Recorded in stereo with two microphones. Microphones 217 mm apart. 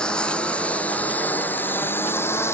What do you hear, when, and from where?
0.0 s a lawn mower: 5° left (ahead or behind); by 2.5 s 10° left (ahead or behind)